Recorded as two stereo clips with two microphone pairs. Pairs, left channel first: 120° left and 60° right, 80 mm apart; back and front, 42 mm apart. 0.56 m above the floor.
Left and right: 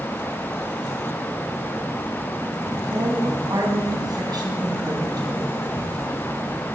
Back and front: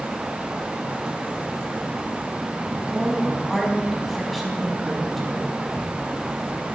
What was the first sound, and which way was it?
A woman speaking, 90° right.